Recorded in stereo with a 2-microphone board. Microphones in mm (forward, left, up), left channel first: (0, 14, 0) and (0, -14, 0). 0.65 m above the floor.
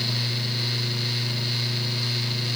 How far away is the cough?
No cough in this recording.